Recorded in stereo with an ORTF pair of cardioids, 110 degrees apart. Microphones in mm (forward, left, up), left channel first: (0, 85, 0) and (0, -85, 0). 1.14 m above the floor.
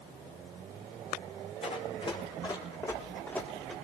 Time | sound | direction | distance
1.6 | running footsteps | 35° left | 5.5 m